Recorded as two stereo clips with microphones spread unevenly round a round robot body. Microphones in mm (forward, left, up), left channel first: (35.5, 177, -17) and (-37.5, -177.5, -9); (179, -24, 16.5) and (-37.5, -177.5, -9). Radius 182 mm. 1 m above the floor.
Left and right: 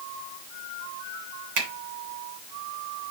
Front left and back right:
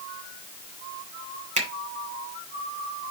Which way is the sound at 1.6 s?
80° right.